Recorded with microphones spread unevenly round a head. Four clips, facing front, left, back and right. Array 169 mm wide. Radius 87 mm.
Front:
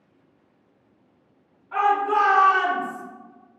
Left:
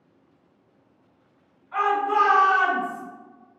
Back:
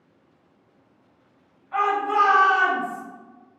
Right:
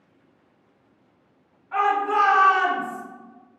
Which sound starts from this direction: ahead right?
A shout, at 1.7 s.